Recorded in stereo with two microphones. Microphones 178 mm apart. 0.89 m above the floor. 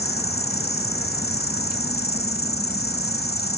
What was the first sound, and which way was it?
An insect, 60° left (ahead or behind).